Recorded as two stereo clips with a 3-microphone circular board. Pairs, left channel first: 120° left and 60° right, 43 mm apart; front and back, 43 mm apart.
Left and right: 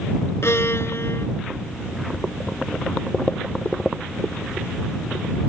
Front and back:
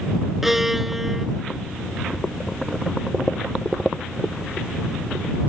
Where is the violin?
95° left.